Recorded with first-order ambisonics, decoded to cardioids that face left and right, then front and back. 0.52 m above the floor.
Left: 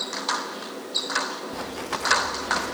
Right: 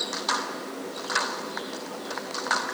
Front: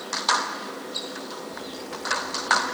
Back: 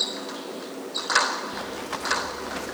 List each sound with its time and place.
1.5 s running footsteps: 115° left